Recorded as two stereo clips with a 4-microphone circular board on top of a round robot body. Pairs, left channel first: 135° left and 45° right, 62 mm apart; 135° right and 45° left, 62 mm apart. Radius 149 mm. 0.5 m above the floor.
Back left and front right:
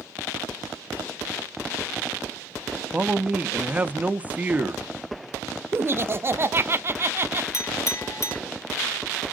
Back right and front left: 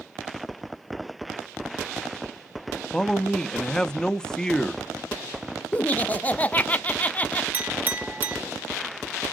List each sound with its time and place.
2.9 s a man speaking: 70° right, 0.8 m
5.7 s laughter: 80° right, 0.9 m
7.5 s a clink: 105° left, 1.1 m